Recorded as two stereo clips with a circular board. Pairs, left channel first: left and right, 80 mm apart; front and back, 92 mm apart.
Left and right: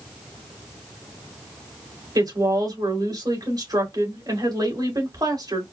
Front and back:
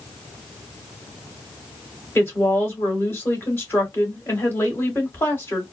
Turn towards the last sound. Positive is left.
turn(degrees=-65)